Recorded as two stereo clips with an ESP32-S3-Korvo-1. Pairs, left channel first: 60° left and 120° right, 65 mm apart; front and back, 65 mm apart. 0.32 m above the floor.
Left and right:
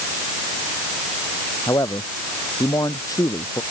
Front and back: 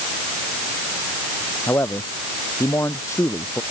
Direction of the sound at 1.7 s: 45° left.